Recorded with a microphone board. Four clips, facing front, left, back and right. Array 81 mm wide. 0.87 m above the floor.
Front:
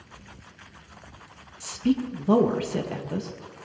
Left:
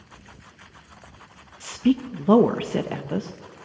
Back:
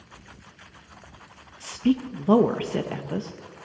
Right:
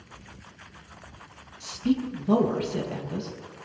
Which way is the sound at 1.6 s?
110° left.